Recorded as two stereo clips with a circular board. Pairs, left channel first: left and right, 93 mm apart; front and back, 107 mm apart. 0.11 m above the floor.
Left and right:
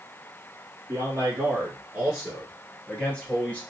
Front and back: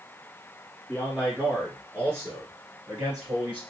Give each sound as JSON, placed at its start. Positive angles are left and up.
{"t": 0.9, "sound": "a man speaking", "azimuth_deg": -95, "distance_m": 1.7}